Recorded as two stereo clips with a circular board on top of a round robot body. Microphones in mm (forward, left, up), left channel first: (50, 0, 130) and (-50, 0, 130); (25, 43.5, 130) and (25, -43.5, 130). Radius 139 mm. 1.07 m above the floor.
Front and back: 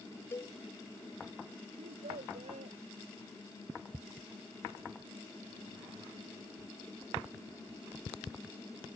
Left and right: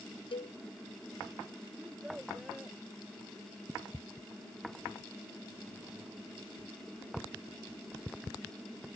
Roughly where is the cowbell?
Ahead left.